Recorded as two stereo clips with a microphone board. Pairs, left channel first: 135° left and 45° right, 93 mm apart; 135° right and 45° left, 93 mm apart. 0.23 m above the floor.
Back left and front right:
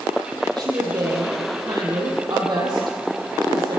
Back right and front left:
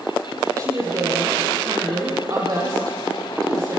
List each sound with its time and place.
0.6 s a woman speaking: 5° right, 8 m